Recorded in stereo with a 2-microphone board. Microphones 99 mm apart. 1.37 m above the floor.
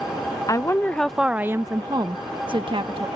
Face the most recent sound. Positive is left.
turn(degrees=-65)  # may be behind; listen again after turning